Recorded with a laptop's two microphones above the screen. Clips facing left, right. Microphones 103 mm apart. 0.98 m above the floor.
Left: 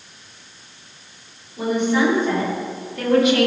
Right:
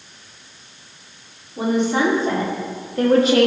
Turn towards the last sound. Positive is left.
turn(degrees=-35)  # may be behind; listen again after turning